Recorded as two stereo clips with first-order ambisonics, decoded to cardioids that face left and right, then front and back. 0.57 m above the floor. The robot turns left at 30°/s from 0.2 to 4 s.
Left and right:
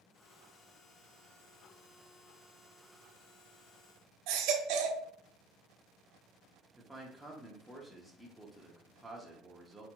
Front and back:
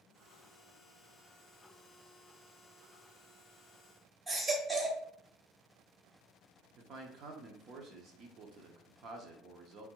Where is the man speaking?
Straight behind, 0.9 m.